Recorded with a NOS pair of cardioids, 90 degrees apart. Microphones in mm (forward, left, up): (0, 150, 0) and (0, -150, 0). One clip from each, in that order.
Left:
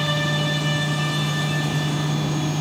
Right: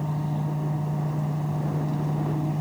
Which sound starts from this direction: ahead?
A fan, at 0.0 s.